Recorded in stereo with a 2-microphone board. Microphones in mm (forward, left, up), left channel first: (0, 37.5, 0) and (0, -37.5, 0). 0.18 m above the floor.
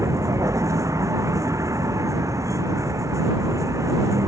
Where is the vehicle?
45° right (ahead or behind).